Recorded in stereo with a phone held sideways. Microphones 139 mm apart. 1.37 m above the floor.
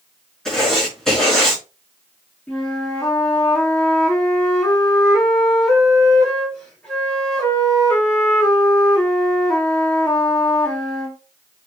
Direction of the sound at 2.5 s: 5° left (ahead or behind).